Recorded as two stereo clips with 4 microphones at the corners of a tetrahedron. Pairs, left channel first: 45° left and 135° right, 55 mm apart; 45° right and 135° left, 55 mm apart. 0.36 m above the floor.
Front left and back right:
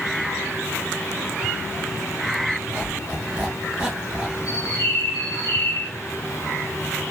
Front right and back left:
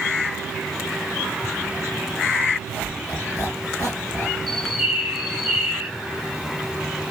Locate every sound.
2.7 s a squeak: 65° right, 2.0 m
4.5 s a bird: 30° left, 1.5 m